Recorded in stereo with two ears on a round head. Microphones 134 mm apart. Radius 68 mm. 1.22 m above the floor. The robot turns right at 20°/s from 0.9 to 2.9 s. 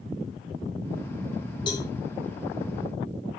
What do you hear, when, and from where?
1.7 s a cowbell: 30° left (ahead or behind), 1.9 m; by 1.9 s 25° left (ahead or behind), 1.9 m